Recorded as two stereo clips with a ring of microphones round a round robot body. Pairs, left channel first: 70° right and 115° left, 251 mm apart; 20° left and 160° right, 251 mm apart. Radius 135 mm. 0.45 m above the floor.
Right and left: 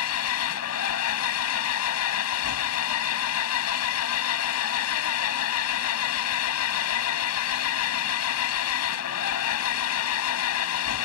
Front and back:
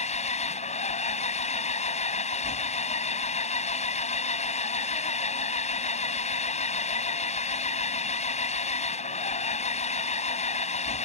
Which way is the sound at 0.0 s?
40° right.